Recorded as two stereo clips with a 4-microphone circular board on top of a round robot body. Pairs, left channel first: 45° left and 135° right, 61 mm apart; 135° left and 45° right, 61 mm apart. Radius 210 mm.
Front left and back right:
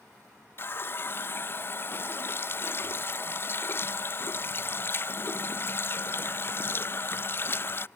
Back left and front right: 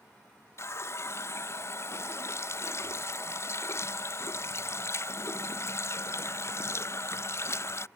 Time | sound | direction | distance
0.6 | a running tap | 95° left | ?